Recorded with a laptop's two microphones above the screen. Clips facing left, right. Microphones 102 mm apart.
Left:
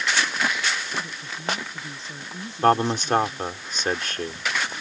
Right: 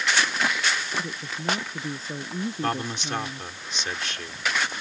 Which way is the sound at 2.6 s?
45° left (ahead or behind).